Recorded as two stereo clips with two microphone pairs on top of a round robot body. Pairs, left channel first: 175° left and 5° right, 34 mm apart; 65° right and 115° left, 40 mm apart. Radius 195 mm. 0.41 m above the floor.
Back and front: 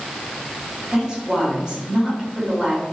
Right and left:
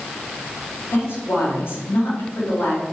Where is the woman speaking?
80° right, 4 m.